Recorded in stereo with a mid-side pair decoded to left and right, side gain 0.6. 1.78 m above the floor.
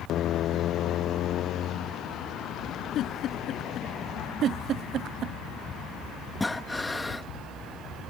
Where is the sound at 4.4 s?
55° right.